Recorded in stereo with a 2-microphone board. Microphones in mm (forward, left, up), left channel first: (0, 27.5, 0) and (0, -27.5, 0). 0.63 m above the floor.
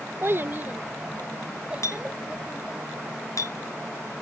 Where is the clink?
75° left (ahead or behind).